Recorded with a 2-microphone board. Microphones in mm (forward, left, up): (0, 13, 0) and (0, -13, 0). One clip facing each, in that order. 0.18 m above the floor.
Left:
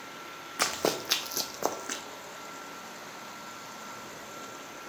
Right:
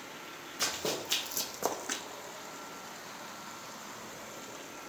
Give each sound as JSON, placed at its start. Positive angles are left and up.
{"t": 0.6, "sound": "running footsteps", "side_deg": 80, "distance_m": 0.6}